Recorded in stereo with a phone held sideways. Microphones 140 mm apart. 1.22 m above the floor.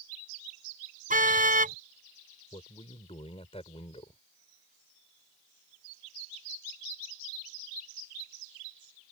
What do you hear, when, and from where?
1.1 s a car horn: 75° right (ahead or behind)
2.5 s a man speaking: 45° left (ahead or behind)